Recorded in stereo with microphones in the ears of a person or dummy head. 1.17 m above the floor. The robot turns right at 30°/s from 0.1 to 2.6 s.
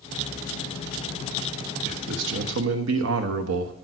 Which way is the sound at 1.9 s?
60° right (ahead or behind).